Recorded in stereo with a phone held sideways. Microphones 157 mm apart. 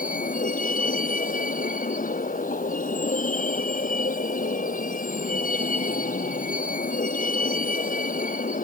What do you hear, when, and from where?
0.0 s a vehicle: 60° left (ahead or behind)